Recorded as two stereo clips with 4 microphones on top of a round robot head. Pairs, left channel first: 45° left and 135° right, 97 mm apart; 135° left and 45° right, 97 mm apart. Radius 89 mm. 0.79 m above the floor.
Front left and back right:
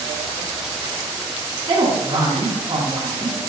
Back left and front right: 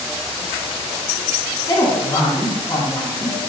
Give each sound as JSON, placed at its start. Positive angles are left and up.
{"t": 1.7, "sound": "a woman speaking", "azimuth_deg": -175, "distance_m": 2.5}